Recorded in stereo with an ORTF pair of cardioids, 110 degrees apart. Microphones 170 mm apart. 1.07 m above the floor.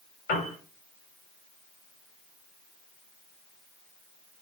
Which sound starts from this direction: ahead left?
A piano, at 0.3 s.